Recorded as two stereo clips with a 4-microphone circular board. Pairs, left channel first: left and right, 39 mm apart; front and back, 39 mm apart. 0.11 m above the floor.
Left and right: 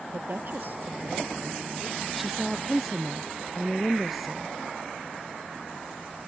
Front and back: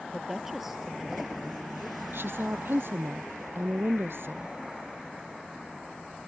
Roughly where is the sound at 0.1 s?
Right.